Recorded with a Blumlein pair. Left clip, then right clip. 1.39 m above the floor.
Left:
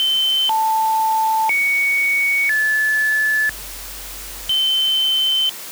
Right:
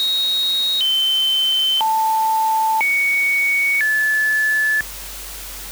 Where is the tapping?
No tapping in this recording.